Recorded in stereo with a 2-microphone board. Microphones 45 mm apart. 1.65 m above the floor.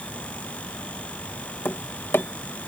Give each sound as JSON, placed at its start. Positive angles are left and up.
{"t": 1.6, "sound": "tapping", "side_deg": 60}